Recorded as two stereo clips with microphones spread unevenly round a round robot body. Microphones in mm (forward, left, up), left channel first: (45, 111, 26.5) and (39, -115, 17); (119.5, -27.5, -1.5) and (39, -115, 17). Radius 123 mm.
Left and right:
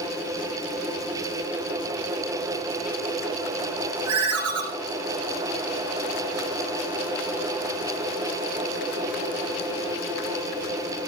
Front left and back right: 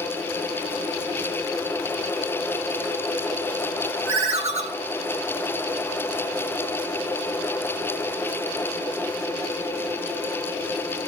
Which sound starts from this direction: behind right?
A ringtone, at 4.1 s.